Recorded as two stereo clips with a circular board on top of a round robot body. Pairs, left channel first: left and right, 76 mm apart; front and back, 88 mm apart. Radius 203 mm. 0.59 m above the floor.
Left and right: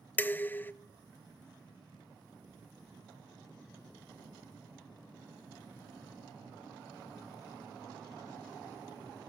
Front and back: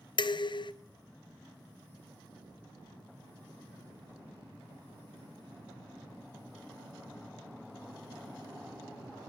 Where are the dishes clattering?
25° left, 0.6 m.